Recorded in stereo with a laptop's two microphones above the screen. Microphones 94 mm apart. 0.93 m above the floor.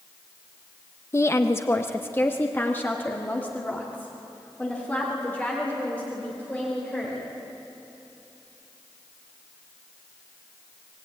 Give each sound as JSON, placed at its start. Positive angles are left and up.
{"t": 1.1, "sound": "a woman speaking", "side_deg": 30, "distance_m": 0.7}